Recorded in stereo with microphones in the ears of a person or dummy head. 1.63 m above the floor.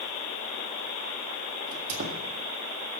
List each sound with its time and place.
1.7 s a squeak: 60° right (ahead or behind), 1.8 m